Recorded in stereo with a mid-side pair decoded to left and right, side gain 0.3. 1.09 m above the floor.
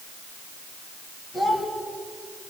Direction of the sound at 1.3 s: 55° left.